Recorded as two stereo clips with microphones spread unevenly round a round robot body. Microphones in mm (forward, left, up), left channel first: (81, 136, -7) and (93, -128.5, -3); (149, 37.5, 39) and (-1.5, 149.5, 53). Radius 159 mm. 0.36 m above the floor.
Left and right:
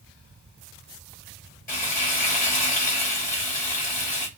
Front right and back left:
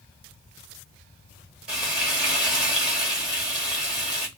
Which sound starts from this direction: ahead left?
Frying, at 1.7 s.